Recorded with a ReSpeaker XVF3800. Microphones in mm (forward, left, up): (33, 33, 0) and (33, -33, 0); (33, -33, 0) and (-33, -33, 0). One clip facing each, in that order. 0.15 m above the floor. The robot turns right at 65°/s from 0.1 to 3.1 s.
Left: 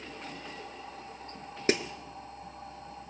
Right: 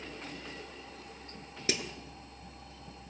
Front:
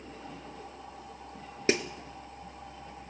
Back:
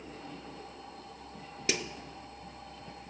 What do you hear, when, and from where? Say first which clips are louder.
1.7 s a snare drum: left 7 dB, front 7 dB; 45° left, 0.8 m; by 1.8 s 55° left, 0.8 m